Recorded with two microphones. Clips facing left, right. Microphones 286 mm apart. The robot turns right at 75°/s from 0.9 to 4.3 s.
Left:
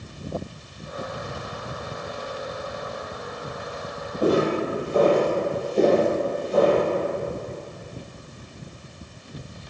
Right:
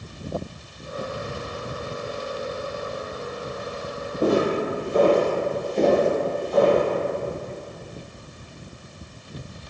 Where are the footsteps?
25° right (ahead or behind), 1.3 m; by 6.8 s 35° left (ahead or behind), 1.2 m.